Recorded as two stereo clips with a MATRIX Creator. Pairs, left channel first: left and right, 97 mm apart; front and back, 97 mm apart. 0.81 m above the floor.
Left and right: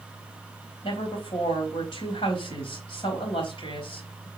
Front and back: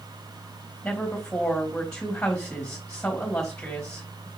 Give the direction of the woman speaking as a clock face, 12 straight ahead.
9 o'clock.